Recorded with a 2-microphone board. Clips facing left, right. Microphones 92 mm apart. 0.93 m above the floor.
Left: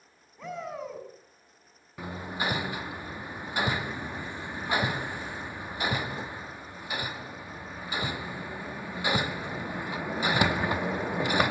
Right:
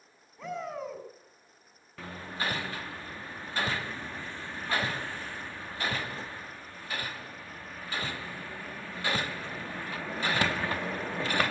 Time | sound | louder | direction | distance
0.4 | a shout | even | centre (ahead or behind) | 6.5 m
2.0 | hammering | left 3 dB | 15° left (ahead or behind) | 0.5 m